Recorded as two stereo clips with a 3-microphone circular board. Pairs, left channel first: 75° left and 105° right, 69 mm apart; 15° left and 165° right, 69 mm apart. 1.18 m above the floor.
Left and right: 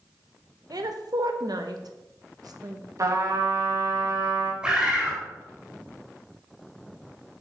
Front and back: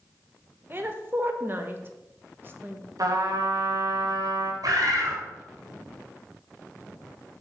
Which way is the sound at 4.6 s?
Straight behind.